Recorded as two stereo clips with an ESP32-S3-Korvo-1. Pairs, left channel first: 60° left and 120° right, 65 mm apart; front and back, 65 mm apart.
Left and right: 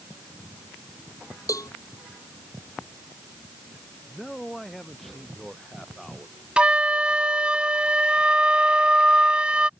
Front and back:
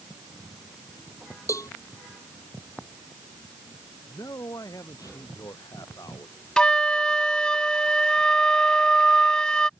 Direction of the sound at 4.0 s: 25° right.